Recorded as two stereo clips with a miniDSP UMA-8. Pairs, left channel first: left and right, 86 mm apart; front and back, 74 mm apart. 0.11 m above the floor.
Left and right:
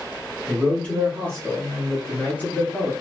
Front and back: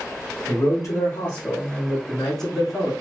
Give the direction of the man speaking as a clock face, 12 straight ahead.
11 o'clock.